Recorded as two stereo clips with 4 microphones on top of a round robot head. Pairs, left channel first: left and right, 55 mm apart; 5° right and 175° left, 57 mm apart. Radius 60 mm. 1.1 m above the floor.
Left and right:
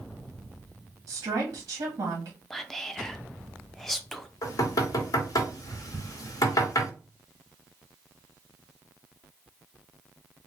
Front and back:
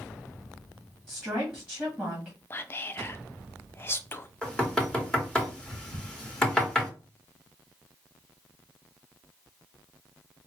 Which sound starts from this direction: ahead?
Whispering, at 2.5 s.